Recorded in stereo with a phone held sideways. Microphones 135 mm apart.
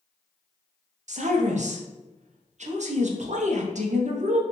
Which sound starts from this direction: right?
A woman speaking, at 1.1 s.